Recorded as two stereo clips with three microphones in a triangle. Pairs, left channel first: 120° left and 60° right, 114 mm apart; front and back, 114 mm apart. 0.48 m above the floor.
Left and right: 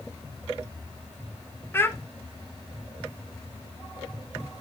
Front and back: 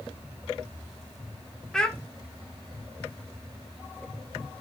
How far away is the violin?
I don't hear a violin.